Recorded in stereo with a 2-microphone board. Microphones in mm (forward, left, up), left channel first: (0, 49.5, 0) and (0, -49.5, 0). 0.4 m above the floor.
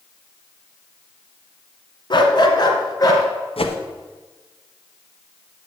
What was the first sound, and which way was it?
A dog barking, 50° left (ahead or behind).